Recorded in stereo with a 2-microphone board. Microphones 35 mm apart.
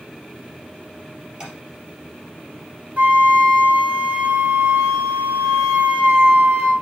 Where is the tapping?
25° right (ahead or behind), 3 m.